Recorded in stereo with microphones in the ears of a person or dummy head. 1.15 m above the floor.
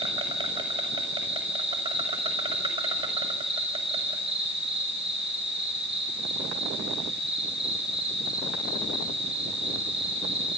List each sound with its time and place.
0.0 s an insect: 25° right (ahead or behind), 5 m